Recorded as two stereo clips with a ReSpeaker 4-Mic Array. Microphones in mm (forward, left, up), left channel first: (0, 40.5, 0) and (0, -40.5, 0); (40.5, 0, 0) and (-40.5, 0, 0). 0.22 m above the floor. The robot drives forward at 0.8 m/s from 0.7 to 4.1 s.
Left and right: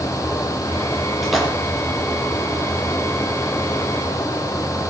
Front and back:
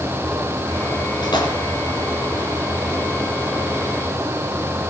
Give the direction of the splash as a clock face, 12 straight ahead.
12 o'clock.